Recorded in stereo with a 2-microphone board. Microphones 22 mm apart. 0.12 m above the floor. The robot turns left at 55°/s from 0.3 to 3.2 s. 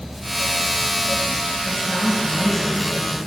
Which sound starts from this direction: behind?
A woman speaking, at 1.6 s.